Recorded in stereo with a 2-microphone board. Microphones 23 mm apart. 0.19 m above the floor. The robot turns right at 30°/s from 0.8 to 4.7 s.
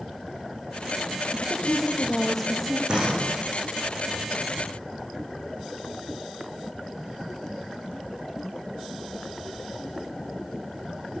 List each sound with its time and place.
1.3 s a woman speaking: 150° left, 5.5 m; by 2.8 s 170° right, 5.5 m
2.9 s a door slam: 40° right (ahead or behind), 10 m; by 3.4 s 25° right (ahead or behind), 10 m